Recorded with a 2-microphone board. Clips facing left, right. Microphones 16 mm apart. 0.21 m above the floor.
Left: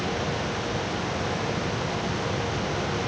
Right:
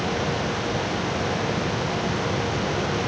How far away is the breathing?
No breathing in this recording.